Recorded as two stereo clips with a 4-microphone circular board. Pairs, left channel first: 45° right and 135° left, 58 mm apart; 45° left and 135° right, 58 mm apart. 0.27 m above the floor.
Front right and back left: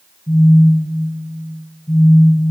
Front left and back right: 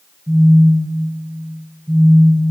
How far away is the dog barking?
No dog barking in this recording.